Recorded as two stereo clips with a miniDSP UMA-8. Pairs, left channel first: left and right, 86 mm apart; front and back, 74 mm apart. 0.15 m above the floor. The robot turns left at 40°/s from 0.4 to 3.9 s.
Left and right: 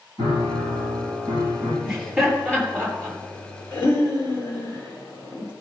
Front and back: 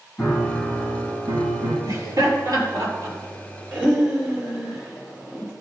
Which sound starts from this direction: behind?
Laughter, at 1.9 s.